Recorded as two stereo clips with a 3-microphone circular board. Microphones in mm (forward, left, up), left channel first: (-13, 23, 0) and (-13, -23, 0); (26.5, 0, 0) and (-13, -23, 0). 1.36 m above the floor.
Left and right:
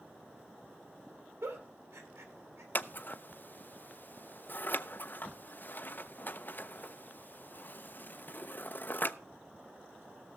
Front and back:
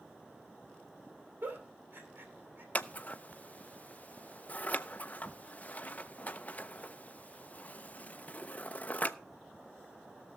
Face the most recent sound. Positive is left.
turn(degrees=70)